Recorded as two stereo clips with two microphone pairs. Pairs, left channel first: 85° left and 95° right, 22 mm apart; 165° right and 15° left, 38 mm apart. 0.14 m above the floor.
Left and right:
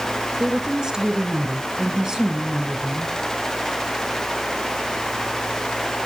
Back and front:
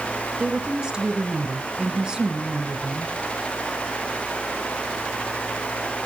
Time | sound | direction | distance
0.4 | a woman speaking | 60° right | 1.7 m